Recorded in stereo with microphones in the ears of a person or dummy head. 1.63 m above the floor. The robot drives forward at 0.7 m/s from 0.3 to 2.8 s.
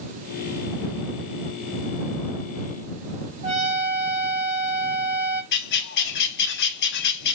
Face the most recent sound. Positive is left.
turn(degrees=60)  # may be behind; listen again after turning